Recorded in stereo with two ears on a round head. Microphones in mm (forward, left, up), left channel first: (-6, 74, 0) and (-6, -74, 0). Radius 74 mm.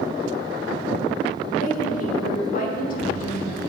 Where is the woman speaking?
50° left (ahead or behind), 1.1 m.